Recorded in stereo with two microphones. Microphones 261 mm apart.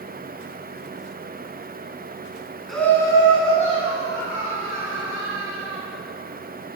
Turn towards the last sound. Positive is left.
turn(degrees=40)  # may be behind; listen again after turning